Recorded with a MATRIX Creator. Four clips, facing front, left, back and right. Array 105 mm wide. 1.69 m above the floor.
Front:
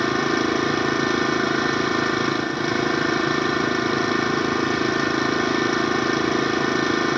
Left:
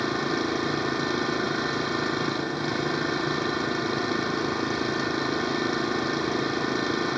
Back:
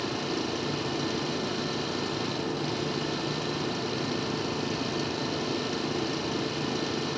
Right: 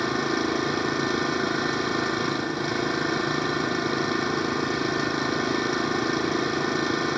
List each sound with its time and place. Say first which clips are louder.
0.0 s an engine running: right 1 dB, front 10 dB; 5° right